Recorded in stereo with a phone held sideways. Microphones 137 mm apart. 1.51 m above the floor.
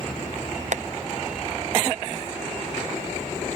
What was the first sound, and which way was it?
Tapping, 60° right (ahead or behind).